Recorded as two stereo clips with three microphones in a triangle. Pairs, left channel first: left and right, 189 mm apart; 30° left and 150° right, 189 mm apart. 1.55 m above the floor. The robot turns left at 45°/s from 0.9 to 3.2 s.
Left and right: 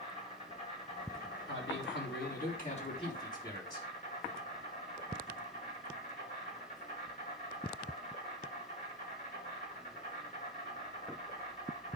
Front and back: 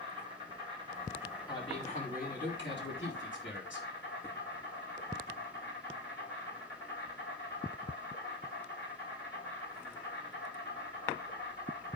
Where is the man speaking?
100° left, 5 m; by 3.9 s 20° left, 5 m.